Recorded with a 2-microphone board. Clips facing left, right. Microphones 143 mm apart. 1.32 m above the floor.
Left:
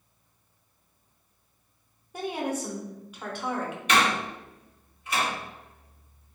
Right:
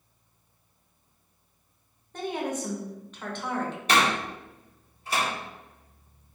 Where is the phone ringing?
No phone ringing in this recording.